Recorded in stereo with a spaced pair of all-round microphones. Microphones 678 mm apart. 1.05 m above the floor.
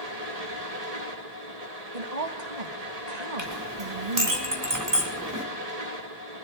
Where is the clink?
25° right (ahead or behind), 3.5 m.